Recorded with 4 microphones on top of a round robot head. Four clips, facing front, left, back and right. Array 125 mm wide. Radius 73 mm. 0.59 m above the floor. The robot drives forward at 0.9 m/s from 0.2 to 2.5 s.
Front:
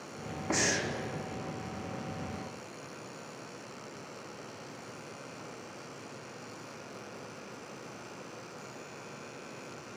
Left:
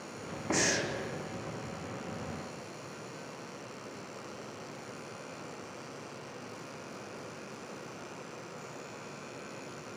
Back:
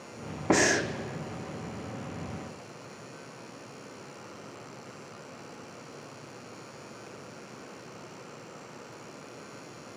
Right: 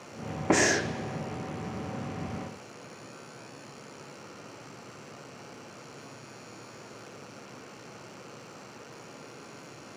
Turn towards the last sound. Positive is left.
turn(degrees=-160)